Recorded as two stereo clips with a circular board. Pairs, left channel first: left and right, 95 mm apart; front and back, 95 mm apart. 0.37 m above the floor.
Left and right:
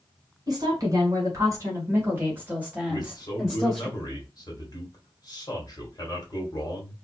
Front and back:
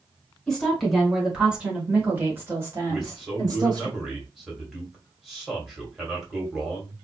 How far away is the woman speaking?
About 1.8 m.